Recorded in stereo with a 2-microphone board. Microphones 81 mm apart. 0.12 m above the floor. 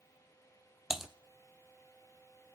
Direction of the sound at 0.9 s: 5° right (ahead or behind).